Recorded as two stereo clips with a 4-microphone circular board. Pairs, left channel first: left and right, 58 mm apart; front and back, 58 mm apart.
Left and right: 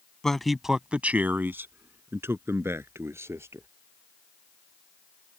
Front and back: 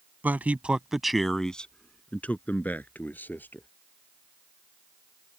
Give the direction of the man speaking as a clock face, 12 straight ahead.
7 o'clock.